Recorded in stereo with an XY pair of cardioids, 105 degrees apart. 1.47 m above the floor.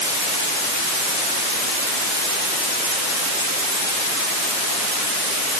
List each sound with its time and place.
Only background noise.